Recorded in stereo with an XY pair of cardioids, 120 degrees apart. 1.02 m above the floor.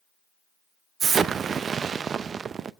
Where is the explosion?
40° right, 0.5 m.